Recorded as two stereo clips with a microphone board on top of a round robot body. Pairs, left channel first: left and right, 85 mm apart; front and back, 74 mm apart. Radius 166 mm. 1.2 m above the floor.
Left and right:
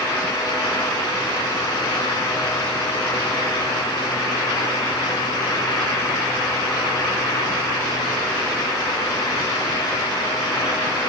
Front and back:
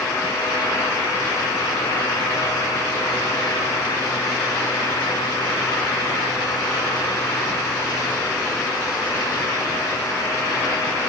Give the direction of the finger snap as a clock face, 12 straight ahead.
No finger snap in this recording.